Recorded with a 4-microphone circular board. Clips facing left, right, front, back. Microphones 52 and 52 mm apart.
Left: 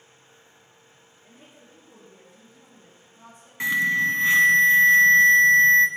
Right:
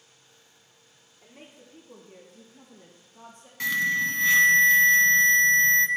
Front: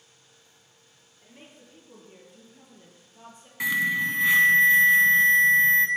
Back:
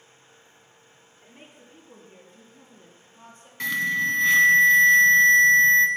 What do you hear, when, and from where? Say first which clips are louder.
1.2 s a woman speaking: right 3 dB, even; 100° right, 3 m; by 3.5 s 70° right, 3.5 m
3.6 s an alarm: left 3 dB, even; 65° left, 0.9 m